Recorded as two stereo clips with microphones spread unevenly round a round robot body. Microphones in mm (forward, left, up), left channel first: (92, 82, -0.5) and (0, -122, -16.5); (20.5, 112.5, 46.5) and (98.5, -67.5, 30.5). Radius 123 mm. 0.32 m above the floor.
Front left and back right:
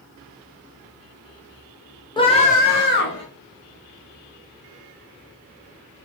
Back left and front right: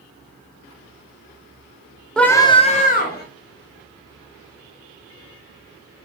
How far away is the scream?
About 0.9 m.